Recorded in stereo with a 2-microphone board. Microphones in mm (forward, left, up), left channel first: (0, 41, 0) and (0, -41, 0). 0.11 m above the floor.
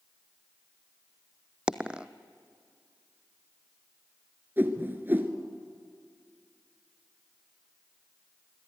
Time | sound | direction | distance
1.7 | a dropped coin | 15° right (ahead or behind) | 0.9 m
4.6 | a whoosh | 25° right (ahead or behind) | 1.5 m